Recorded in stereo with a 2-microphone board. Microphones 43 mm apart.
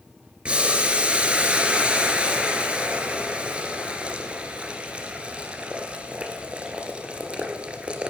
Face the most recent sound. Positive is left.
turn(degrees=-25)  # may be behind; listen again after turning